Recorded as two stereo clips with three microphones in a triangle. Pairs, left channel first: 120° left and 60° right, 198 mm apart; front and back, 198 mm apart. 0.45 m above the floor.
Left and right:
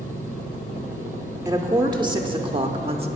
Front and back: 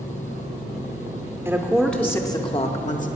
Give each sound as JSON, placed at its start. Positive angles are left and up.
{"t": 1.4, "sound": "a woman speaking", "azimuth_deg": -120, "distance_m": 0.9}